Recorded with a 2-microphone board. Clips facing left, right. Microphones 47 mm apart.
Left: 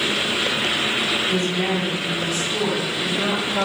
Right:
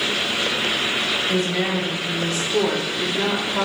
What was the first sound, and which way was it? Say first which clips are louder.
A woman speaking: even; 45° right (ahead or behind).